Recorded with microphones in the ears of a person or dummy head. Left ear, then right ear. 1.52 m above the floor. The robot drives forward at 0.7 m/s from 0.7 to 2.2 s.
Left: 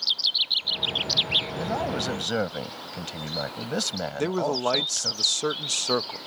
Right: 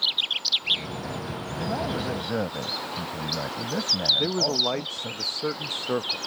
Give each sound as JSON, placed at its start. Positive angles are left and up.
{"t": 1.6, "sound": "a man speaking", "side_deg": 80}
{"t": 4.2, "sound": "a man speaking", "side_deg": 90}